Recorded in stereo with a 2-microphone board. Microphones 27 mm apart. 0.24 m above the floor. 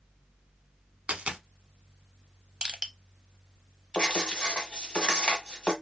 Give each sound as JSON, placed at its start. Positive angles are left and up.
{"t": 1.1, "sound": "a dropped coin", "side_deg": -55, "distance_m": 0.6}
{"t": 2.6, "sound": "crushing", "side_deg": -35, "distance_m": 0.5}
{"t": 3.9, "sound": "writing", "side_deg": 35, "distance_m": 1.1}